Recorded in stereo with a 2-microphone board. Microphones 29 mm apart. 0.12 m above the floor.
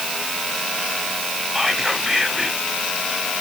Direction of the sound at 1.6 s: 10° right (ahead or behind).